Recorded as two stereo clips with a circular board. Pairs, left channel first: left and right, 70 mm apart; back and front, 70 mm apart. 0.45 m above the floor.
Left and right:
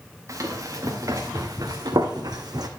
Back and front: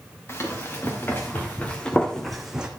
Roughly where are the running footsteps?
Behind right.